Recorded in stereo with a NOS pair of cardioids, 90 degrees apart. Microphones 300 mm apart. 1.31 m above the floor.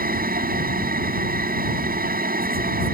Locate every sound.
0.0 s a machine running: 30° right